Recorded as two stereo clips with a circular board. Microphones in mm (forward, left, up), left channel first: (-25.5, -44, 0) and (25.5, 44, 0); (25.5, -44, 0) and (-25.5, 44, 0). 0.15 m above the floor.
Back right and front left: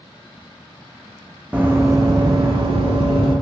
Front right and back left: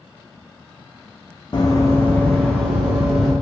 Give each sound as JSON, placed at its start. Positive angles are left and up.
{"t": 1.5, "sound": "running footsteps", "azimuth_deg": -15, "distance_m": 0.6}